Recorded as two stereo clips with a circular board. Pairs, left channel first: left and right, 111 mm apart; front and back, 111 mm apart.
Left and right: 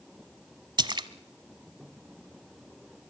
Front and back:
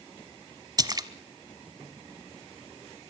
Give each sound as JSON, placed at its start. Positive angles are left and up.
{"t": 0.8, "sound": "a splash", "azimuth_deg": -130, "distance_m": 1.1}